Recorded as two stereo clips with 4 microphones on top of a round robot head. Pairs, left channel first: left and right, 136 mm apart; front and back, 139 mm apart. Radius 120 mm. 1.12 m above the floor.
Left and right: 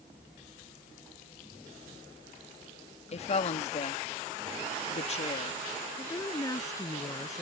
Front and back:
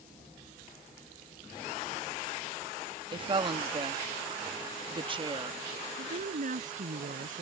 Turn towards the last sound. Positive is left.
turn(degrees=155)